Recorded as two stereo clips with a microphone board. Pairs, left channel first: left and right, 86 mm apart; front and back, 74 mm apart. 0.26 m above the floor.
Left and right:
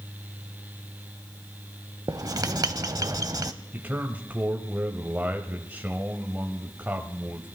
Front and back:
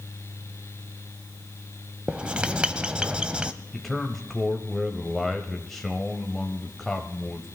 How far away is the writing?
About 0.5 m.